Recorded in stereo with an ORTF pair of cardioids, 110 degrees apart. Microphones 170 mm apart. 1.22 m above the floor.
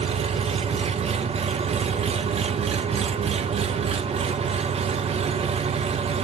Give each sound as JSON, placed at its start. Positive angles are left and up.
{"t": 0.0, "sound": "an engine running", "azimuth_deg": -35, "distance_m": 0.7}